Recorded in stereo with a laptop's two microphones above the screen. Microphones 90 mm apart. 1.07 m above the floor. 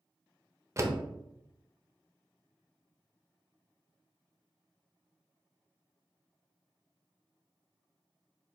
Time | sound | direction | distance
0.8 | a door slam | 30° right (ahead or behind) | 0.6 m